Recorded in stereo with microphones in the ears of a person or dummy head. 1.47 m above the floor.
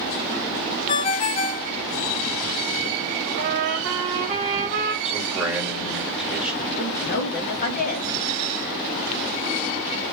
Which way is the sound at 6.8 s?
45° left (ahead or behind).